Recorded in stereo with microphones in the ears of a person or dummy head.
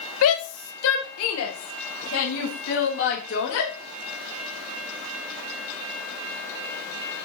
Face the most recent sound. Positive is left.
turn(degrees=75)  # may be behind; listen again after turning